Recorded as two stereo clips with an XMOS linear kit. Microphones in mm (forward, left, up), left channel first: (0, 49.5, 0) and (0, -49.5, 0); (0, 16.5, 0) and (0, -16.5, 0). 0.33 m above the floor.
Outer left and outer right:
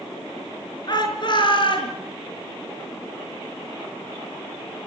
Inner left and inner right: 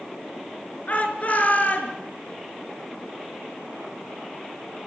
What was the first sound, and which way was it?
A shout, 45° left (ahead or behind).